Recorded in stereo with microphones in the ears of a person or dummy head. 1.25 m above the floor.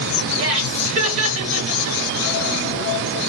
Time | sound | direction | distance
0.4 | laughter | 65° right (ahead or behind) | 1.2 m